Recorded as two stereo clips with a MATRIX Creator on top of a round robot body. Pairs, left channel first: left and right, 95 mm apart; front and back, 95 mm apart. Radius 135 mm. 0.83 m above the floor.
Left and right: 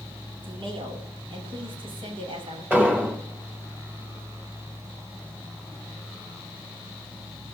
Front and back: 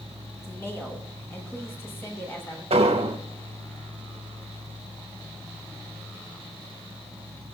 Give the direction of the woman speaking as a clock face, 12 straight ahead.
2 o'clock.